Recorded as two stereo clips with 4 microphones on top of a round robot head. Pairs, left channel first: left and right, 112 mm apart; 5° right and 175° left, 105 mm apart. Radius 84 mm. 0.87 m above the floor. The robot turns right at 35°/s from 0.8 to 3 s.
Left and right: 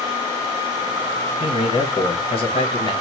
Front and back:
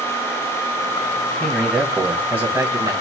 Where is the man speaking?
70° left, 1.5 m; by 2.9 s 125° left, 1.5 m.